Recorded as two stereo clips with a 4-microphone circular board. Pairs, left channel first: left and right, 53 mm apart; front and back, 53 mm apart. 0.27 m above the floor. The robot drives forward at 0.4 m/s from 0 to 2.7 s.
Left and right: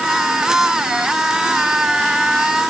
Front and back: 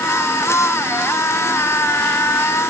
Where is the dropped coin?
I don't hear a dropped coin.